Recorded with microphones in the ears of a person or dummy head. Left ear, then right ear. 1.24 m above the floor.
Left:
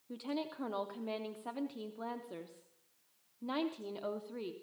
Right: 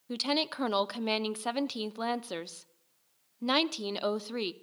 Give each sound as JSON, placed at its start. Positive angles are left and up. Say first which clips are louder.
{"t": 0.1, "sound": "a woman speaking", "louder": "right 10 dB", "side_deg": -70, "distance_m": 0.6}